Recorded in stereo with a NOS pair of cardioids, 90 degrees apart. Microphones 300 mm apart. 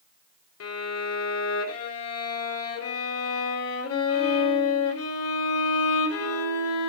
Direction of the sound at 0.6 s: 55° left.